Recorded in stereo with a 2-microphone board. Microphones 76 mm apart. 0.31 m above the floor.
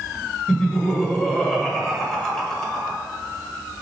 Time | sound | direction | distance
0.5 | laughter | 5° left (ahead or behind) | 0.9 m